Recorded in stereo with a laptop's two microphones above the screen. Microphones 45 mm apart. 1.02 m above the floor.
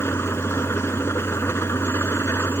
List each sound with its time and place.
0.0 s an engine running: 75° left (ahead or behind)